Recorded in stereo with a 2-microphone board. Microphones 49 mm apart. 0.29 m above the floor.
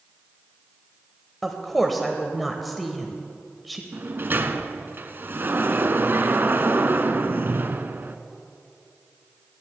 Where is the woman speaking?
Centre (ahead or behind), 0.9 m.